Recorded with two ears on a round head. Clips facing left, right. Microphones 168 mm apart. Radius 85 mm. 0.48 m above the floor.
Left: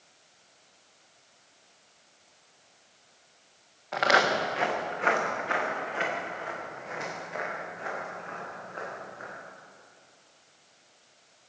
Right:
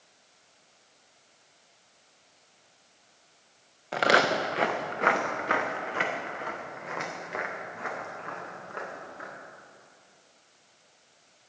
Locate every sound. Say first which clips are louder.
3.9 s footsteps: right 1 dB; 40° right (ahead or behind), 1.8 m; by 9.3 s 75° right (ahead or behind), 6.5 m